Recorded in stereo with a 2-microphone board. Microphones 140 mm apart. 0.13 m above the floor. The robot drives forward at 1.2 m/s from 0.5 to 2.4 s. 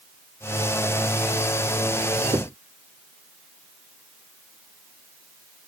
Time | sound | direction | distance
2.3 | knocking | 30° right (ahead or behind) | ?